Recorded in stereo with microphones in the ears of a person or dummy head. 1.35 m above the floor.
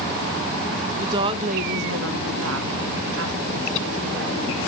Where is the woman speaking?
15° right (ahead or behind), 0.7 m; by 4.4 s 55° right (ahead or behind), 1.7 m.